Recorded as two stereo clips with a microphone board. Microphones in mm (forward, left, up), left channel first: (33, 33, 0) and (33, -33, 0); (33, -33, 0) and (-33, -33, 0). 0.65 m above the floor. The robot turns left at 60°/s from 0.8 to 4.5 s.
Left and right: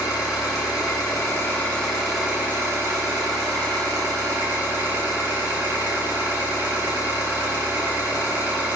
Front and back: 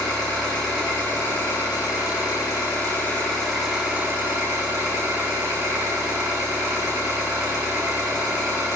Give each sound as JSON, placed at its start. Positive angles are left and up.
{"t": 0.0, "sound": "an engine running", "azimuth_deg": 75, "distance_m": 4.0}